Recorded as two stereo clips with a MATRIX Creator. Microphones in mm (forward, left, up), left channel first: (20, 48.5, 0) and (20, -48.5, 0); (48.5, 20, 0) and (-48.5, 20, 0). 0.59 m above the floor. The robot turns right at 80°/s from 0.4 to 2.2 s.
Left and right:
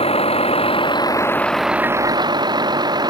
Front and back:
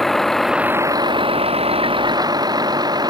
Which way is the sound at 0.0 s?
90° left.